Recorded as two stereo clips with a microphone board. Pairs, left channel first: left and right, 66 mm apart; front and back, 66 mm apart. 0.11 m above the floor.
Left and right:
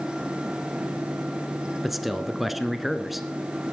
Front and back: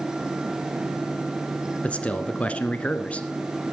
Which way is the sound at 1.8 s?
5° right.